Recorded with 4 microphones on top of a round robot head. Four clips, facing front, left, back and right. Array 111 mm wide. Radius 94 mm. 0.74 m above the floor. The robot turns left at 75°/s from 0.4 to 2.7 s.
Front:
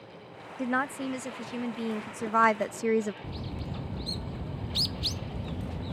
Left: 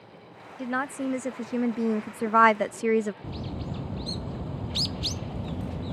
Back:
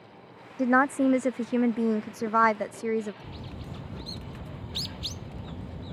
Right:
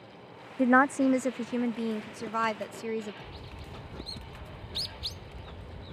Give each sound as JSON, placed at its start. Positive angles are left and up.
{"t": 0.6, "sound": "a woman speaking", "azimuth_deg": -120}
{"t": 3.2, "sound": "a bird", "azimuth_deg": 80}